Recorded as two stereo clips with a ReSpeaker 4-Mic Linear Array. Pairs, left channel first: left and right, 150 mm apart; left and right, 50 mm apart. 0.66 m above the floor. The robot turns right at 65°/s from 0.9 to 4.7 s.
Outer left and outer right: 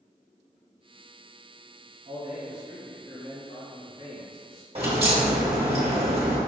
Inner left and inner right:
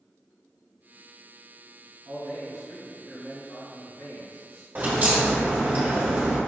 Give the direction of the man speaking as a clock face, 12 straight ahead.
2 o'clock.